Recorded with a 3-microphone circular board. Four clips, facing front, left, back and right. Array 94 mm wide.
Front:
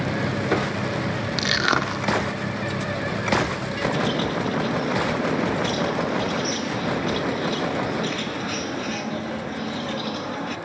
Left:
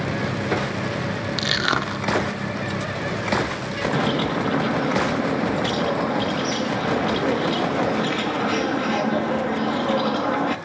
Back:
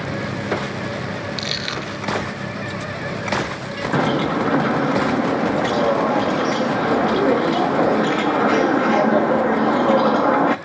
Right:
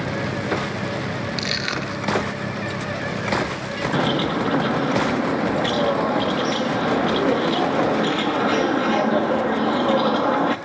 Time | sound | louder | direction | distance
1.4 | crushing | left 3 dB, front 5 dB | 35° left | 1.9 m
3.9 | a bird | right 2 dB, back 9 dB | 165° right | 1.3 m